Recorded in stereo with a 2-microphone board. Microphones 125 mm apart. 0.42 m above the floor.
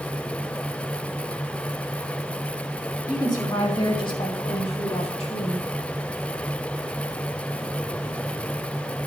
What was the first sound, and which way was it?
A woman speaking, 35° left (ahead or behind).